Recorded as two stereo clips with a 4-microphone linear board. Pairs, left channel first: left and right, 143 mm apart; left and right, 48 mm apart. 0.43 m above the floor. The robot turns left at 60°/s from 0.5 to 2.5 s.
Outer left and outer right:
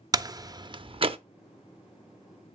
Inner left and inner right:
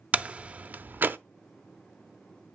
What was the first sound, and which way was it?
A door slam, 25° right (ahead or behind).